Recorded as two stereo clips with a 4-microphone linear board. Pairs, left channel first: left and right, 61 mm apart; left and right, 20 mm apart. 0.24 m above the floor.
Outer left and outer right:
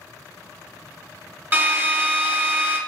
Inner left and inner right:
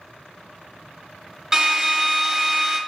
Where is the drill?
30° right (ahead or behind), 0.5 m.